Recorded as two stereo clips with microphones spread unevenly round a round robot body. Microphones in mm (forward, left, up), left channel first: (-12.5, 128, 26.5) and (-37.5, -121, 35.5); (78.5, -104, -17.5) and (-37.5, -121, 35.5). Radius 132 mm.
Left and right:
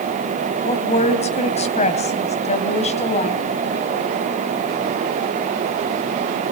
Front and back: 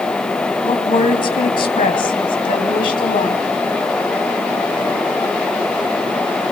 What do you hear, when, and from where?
0.6 s a woman speaking: 20° left, 2.5 m